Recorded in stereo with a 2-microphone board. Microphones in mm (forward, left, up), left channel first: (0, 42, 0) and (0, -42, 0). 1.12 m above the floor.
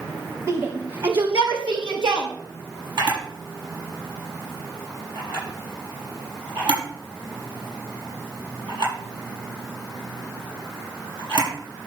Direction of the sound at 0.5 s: 50° right (ahead or behind).